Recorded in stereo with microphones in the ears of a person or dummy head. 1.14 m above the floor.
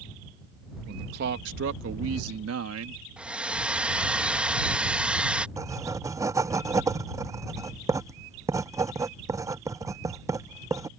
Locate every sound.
0.9 s a man speaking: 55° right (ahead or behind); by 3.0 s 80° right
3.2 s a hair dryer: 5° right (ahead or behind)
5.6 s writing: 15° right (ahead or behind)